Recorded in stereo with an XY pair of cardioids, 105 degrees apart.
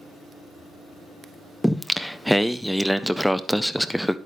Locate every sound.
1.6 s singing: straight ahead, 0.5 m